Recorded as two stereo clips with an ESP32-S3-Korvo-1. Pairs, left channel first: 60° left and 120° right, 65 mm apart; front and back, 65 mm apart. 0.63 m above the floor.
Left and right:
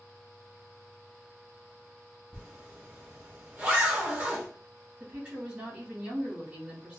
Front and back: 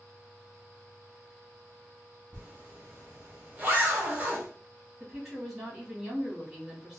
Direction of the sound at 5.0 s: 100° right.